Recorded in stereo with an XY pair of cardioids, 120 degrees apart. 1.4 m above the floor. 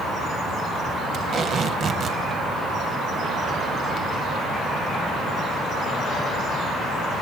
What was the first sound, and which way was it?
Tape being pulled, 45° right.